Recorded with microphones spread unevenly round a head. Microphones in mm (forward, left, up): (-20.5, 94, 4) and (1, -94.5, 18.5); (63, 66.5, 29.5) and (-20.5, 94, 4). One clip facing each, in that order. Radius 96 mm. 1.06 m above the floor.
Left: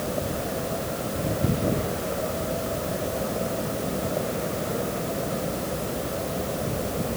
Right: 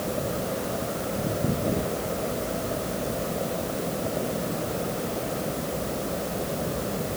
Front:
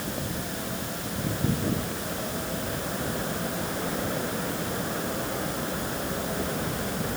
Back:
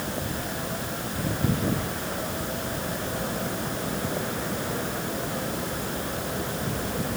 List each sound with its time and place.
Only background noise.